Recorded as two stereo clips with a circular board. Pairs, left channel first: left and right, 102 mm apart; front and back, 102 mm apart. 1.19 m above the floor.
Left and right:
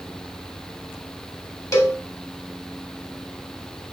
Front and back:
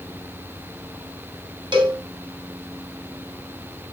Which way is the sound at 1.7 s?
145° left.